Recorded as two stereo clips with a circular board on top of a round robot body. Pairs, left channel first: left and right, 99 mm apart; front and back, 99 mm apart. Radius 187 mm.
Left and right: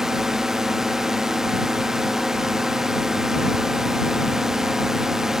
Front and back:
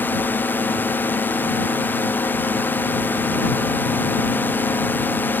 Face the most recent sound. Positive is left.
turn(degrees=-15)